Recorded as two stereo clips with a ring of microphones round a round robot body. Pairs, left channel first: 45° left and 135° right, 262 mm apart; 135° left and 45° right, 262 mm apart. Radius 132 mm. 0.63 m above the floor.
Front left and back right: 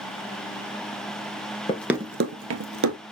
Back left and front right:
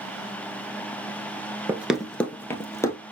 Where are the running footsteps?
20° left, 0.6 m; by 3.0 s 145° right, 1.3 m.